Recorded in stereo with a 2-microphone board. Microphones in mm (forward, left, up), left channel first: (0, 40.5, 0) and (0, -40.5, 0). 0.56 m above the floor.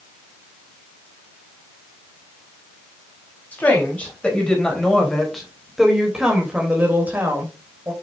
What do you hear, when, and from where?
3.5 s a woman speaking: 20° left (ahead or behind), 4 m; by 7.9 s 35° right (ahead or behind), 3 m